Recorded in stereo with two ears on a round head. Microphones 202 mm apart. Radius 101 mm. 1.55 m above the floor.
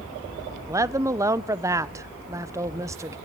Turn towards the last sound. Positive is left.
turn(degrees=-15)  # may be behind; listen again after turning